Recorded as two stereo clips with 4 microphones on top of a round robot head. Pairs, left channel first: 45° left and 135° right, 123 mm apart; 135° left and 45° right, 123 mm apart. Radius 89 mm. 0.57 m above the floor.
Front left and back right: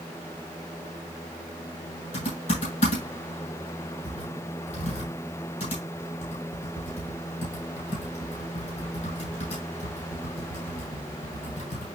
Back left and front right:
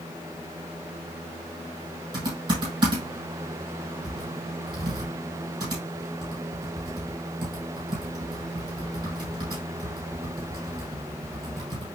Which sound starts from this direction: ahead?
Typing on a keyboard, at 2.1 s.